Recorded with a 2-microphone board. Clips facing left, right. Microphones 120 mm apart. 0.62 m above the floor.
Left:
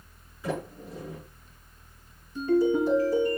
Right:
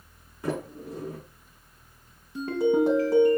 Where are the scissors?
I don't hear scissors.